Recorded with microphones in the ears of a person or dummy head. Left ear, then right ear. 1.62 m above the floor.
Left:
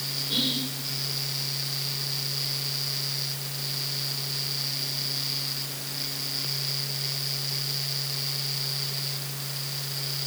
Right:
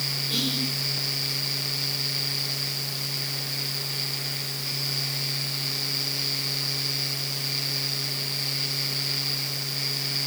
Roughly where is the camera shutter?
No camera shutter in this recording.